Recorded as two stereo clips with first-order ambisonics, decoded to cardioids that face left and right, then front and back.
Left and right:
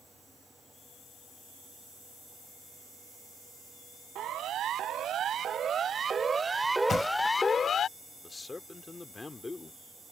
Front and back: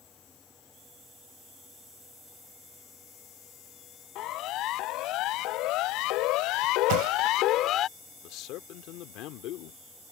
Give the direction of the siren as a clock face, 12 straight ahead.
1 o'clock.